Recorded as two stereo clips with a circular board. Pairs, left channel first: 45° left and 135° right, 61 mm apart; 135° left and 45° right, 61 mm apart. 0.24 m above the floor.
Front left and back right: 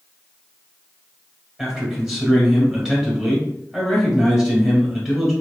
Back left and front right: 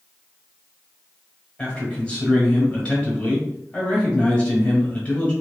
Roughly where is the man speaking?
Behind left.